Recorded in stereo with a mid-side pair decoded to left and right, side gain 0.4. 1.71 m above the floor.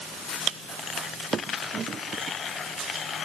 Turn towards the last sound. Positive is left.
No sound to turn to.